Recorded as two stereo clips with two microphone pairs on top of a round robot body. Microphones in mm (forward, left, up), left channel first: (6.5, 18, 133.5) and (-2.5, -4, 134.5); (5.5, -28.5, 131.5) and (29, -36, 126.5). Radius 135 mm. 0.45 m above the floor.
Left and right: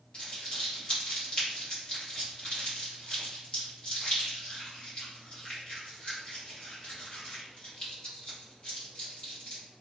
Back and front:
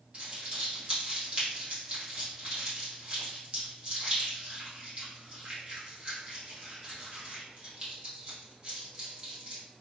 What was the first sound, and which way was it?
Crumpling, 20° left.